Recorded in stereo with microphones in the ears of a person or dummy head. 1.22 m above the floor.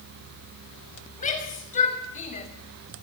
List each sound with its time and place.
1.2 s a shout: 35° left (ahead or behind), 6 m; by 2.5 s 30° left (ahead or behind), 5.5 m